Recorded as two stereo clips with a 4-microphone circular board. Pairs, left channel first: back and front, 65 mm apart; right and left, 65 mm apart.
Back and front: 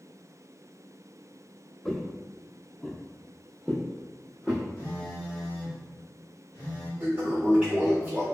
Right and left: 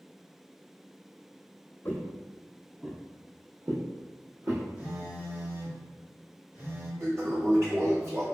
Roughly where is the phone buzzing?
Behind left.